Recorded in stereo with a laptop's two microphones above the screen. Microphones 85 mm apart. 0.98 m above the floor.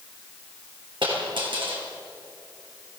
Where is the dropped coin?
75° right (ahead or behind), 6.5 m.